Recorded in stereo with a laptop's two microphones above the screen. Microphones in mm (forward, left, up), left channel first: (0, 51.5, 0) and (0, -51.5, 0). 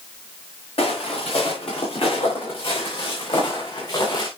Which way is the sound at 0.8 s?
70° left (ahead or behind).